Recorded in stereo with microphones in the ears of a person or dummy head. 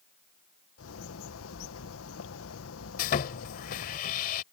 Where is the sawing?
40° left (ahead or behind).